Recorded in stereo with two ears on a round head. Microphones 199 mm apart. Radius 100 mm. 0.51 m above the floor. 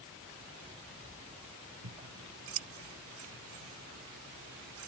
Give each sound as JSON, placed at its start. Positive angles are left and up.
{"t": 1.8, "sound": "scissors", "side_deg": -75}